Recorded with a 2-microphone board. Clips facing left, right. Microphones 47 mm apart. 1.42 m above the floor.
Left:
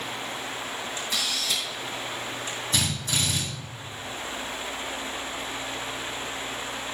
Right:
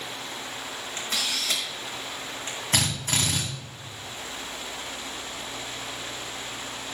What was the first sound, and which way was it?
A camera shutter, 50° right (ahead or behind).